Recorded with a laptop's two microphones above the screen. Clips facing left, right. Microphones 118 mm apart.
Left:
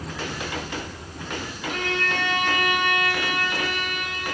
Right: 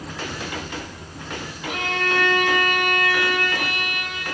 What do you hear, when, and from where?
1.7 s a violin: 10° right (ahead or behind), 2.5 m